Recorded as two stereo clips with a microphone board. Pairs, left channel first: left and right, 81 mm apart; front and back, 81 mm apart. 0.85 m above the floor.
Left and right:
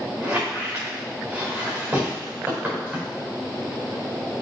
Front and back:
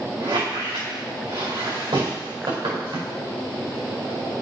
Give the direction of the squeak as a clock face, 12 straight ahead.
5 o'clock.